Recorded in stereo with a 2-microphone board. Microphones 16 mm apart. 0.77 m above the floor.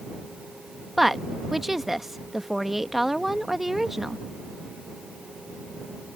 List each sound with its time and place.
1.0 s a woman speaking: 25° right (ahead or behind)